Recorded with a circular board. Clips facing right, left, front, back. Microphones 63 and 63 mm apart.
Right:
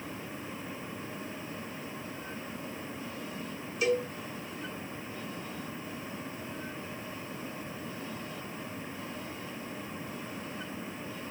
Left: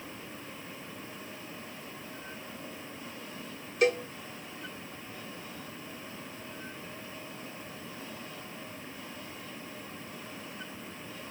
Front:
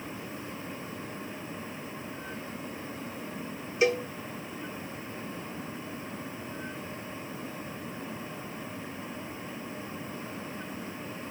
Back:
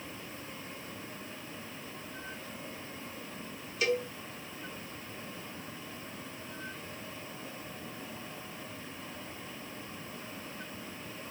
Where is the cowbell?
65° left, 0.9 m.